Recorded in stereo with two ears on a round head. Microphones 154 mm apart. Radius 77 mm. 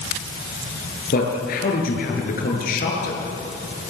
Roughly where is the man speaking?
Left.